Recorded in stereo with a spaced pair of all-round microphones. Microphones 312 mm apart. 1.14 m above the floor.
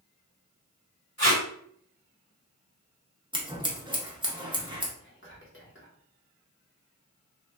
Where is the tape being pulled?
45° left (ahead or behind), 2 m.